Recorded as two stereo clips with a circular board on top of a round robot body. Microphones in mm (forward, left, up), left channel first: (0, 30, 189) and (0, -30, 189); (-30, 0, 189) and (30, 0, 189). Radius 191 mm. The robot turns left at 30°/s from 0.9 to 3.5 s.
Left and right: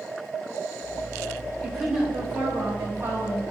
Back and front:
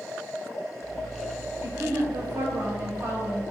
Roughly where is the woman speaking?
Ahead.